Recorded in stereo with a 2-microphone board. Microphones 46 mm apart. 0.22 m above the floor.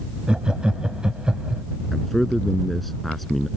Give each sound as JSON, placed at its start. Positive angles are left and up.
{"t": 0.3, "sound": "laughter", "side_deg": -20}
{"t": 1.9, "sound": "a man speaking", "side_deg": 5}